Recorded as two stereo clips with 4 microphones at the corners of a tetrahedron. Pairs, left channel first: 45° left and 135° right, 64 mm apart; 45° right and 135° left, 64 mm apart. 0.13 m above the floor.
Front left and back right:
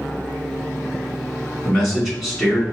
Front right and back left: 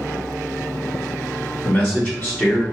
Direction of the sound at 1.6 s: 50° right.